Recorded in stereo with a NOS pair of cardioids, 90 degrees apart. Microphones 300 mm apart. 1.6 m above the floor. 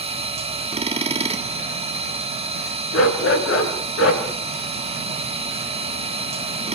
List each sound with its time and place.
0.0 s a machine running: 20° right, 1.8 m
2.9 s a dog barking: 50° left, 8 m